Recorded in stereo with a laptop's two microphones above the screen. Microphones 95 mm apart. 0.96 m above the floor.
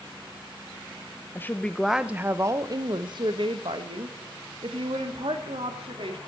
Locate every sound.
1.4 s a woman speaking: 25° left (ahead or behind), 0.6 m; by 6.2 s 75° right (ahead or behind), 2.5 m